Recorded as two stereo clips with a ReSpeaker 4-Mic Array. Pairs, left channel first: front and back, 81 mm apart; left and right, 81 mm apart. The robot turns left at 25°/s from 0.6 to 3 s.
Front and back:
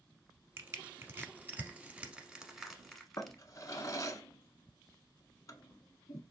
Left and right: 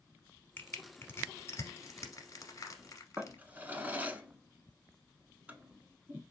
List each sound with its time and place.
0.6 s crushing: 145° left, 1.0 m; by 3.4 s 85° left, 1.0 m
3.2 s a drawer: 30° right, 0.5 m